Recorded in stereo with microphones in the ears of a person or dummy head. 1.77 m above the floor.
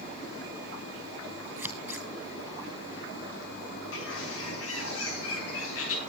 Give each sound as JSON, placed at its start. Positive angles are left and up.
{"t": 1.6, "sound": "scissors", "side_deg": -15, "distance_m": 4.0}
{"t": 3.9, "sound": "a bird", "side_deg": 75, "distance_m": 7.5}